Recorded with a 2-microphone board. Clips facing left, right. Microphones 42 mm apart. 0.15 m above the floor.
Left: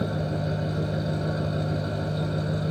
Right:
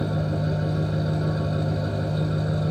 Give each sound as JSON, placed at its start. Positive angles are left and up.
{"t": 0.0, "sound": "an engine running", "side_deg": 0, "distance_m": 0.8}